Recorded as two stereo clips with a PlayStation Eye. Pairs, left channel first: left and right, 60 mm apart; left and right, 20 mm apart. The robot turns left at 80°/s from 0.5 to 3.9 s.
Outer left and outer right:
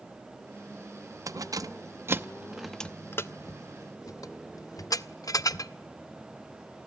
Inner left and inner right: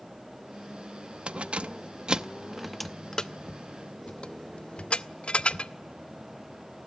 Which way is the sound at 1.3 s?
65° right (ahead or behind).